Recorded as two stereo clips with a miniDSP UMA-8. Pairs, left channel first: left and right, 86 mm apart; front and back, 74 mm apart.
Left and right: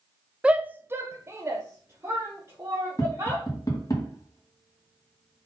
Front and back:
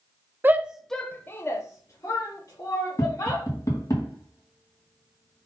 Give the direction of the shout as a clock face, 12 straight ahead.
5 o'clock.